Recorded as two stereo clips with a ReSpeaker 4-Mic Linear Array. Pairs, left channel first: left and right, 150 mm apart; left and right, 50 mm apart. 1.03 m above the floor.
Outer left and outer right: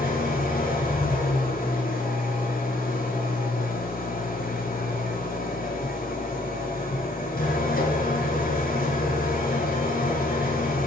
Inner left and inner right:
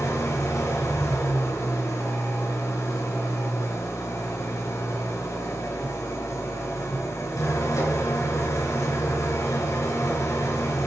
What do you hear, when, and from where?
0.0 s an engine running: 70° left (ahead or behind), 3 m